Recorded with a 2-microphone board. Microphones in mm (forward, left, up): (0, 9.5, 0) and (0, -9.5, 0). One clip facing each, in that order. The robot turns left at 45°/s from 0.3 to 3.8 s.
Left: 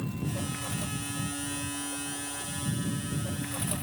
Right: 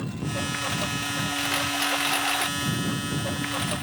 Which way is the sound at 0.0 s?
30° right (ahead or behind).